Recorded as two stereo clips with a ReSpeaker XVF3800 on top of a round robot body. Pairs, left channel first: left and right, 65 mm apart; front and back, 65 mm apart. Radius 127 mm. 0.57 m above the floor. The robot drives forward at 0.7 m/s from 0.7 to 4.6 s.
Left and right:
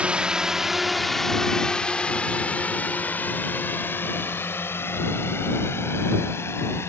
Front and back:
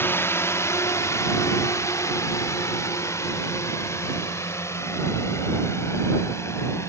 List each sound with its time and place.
0.0 s a drone: 30° right; by 6.9 s 40° left